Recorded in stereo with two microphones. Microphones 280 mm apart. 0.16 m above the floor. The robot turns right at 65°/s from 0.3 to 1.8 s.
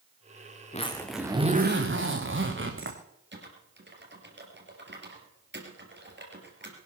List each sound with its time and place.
0.7 s a zipper: 155° left, 2.5 m; by 3.0 s 135° right, 2.5 m
3.3 s typing on a keyboard: 40° right (ahead or behind), 3.5 m